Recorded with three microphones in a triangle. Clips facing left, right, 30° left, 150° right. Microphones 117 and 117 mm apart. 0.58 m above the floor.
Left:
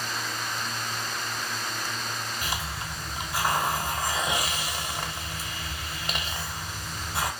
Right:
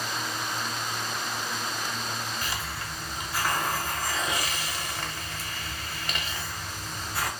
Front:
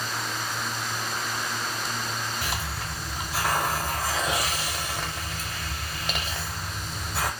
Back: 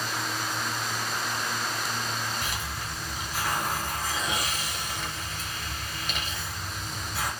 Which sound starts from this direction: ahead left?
A hiss, at 2.4 s.